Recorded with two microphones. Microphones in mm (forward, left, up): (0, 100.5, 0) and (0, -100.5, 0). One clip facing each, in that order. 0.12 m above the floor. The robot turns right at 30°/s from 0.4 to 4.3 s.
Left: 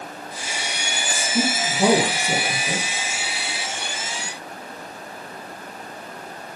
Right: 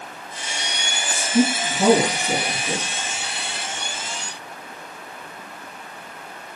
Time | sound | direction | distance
1.1 | a woman speaking | 20° right | 2 m